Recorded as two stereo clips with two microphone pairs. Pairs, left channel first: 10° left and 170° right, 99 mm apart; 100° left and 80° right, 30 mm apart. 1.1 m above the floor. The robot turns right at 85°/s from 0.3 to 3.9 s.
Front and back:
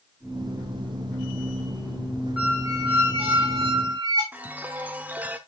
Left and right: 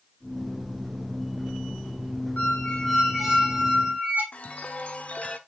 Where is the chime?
120° left, 0.9 m.